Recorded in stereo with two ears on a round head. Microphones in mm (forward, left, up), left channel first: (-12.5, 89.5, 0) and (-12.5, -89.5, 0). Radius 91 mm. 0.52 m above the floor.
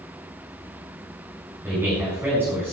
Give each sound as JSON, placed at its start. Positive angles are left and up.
{"t": 1.6, "sound": "a man speaking", "side_deg": -10, "distance_m": 6.0}